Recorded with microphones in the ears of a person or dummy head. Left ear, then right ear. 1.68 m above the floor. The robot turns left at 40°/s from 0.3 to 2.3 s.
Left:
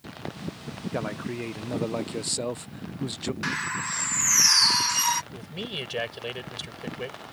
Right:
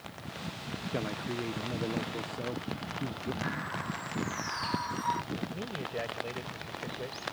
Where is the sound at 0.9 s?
165° left; by 3.3 s 110° left.